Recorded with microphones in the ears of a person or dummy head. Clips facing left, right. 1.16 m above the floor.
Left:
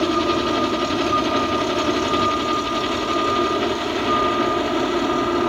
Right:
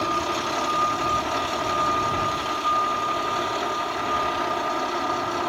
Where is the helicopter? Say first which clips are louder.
Left 8 dB; 45° left (ahead or behind).